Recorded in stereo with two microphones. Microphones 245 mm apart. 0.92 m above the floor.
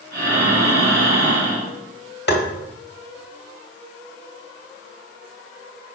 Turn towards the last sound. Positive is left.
turn(degrees=45)  # may be behind; listen again after turning